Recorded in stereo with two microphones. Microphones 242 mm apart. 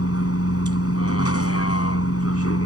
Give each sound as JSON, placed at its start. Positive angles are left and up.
{"t": 0.0, "sound": "a vehicle", "side_deg": 75}